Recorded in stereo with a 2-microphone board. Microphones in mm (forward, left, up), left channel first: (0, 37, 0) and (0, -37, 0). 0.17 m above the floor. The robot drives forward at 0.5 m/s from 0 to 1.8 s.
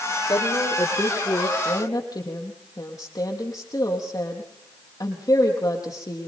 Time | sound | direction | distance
0.3 | a woman speaking | 65° left (ahead or behind) | 5 m